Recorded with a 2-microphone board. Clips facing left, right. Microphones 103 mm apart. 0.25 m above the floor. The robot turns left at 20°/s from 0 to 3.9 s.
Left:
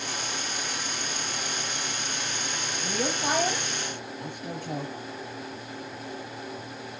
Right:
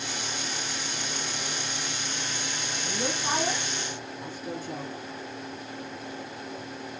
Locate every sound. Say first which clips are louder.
2.8 s a woman speaking: left 3 dB; 75° left (ahead or behind), 4 m; by 4.9 s 60° left (ahead or behind), 4 m